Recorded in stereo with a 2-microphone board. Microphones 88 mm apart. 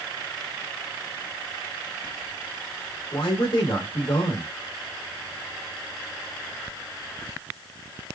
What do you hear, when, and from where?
3.1 s a man speaking: 65° left (ahead or behind), 2 m